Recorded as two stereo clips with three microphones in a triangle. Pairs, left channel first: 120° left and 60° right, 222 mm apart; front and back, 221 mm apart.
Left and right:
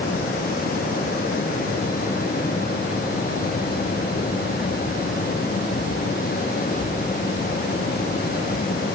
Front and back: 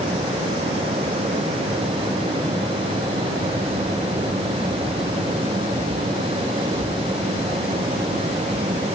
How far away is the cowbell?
I don't hear a cowbell.